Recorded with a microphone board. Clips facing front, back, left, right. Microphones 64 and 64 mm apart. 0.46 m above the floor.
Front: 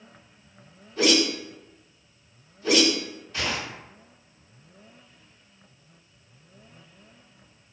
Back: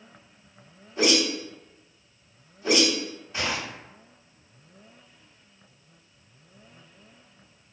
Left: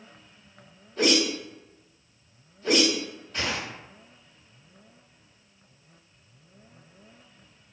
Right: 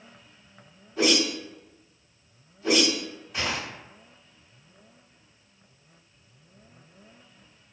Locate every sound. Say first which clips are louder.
1.0 s a whoosh: front 1 dB, even; 165° right, 1.4 m